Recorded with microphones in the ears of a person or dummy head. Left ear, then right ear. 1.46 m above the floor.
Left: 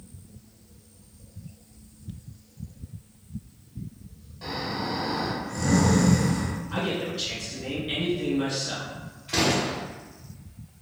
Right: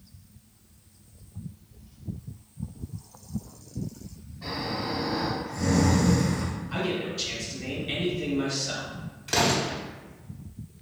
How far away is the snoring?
About 1.5 m.